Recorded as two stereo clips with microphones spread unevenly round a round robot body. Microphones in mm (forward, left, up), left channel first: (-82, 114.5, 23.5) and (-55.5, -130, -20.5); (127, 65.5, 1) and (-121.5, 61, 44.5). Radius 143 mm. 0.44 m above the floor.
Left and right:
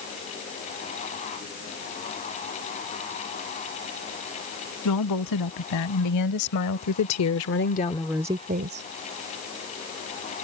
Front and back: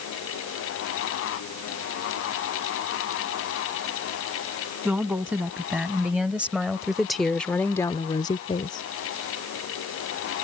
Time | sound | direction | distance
4.8 | a woman speaking | 95° left | ?